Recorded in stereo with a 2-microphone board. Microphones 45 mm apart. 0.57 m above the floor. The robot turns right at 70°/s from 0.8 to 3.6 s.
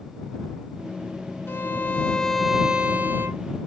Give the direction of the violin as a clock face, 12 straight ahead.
8 o'clock.